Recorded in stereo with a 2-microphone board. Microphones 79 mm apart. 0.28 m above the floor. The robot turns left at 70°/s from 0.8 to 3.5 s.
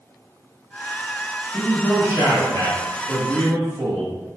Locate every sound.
1.5 s a man speaking: 150° left, 1.2 m; by 4.1 s 10° left, 1.2 m